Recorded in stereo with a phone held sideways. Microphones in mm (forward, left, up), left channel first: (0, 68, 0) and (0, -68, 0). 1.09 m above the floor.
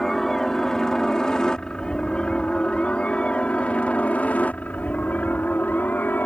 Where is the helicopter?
5° left (ahead or behind); by 6.3 s 15° left (ahead or behind).